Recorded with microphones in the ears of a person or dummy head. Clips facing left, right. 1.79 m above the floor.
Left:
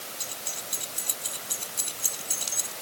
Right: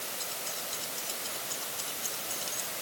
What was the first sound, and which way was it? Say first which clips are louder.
Keys jangling: even; 45° left (ahead or behind).